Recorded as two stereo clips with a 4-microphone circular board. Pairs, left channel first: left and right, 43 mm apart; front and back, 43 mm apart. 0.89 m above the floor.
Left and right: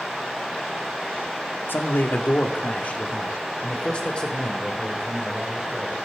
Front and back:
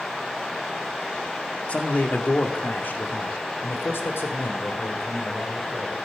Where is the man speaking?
55° left, 1.8 m; by 6.0 s 15° left, 4 m.